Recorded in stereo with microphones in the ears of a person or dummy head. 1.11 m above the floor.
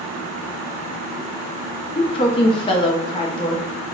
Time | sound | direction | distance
1.9 | a woman speaking | 25° left (ahead or behind) | 0.7 m